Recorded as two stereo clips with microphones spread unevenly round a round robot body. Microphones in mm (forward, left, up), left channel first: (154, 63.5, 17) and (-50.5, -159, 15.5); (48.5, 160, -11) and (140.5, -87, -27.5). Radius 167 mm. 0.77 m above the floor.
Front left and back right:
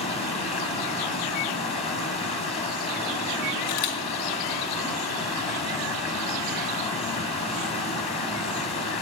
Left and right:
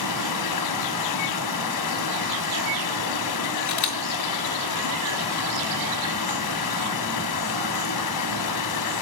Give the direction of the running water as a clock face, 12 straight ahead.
8 o'clock.